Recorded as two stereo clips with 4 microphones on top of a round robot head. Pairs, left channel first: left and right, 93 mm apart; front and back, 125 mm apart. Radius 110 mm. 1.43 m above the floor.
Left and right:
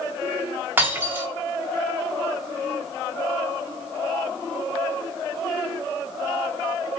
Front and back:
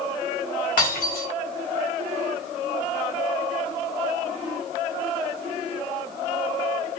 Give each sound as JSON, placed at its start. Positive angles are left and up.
{"t": 0.8, "sound": "breaking glass", "azimuth_deg": -20, "distance_m": 3.5}